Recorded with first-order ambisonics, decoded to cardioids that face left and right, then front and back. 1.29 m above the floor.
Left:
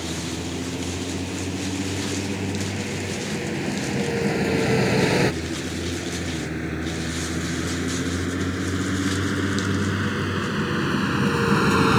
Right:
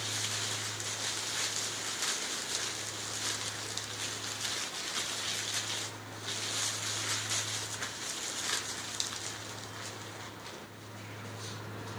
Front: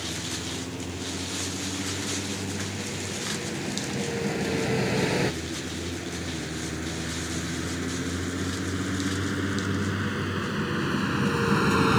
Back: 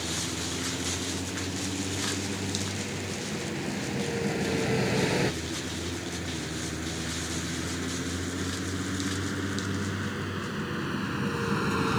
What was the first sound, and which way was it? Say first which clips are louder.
A vehicle: left 5 dB, even; 90° left.